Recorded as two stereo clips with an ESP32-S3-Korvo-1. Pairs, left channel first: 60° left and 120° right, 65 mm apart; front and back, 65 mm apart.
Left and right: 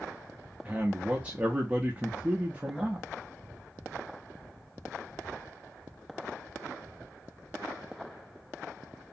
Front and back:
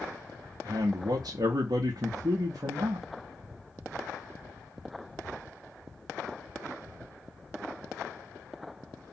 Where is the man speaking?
170° left, 0.6 m.